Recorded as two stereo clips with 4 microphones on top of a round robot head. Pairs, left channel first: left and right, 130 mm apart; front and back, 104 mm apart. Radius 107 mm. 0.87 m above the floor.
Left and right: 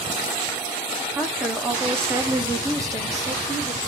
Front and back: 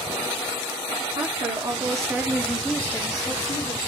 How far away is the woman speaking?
About 1.1 m.